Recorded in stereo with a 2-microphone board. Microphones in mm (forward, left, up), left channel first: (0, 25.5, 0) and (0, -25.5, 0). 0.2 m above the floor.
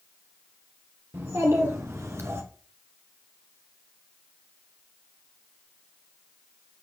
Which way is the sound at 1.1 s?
70° right (ahead or behind).